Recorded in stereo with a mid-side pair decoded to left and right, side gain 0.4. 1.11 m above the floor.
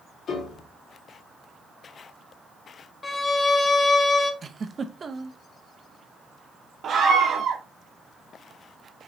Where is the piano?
65° left, 3 m.